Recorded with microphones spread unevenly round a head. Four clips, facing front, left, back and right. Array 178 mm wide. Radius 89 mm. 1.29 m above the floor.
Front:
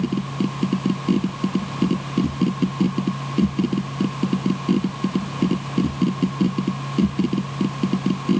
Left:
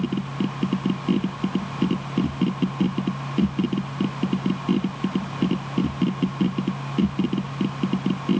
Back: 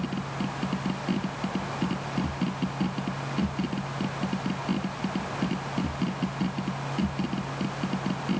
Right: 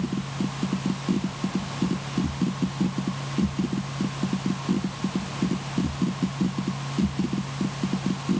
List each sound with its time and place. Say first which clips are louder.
0.0 s a machine running: left 3 dB, front 8 dB; 25° left